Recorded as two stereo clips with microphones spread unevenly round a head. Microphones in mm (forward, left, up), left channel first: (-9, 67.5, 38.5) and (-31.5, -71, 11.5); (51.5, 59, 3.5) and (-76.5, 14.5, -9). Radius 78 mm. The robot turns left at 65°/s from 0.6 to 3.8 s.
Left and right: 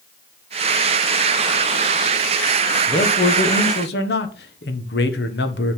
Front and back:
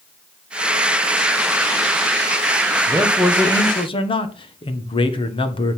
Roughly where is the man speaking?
Behind left.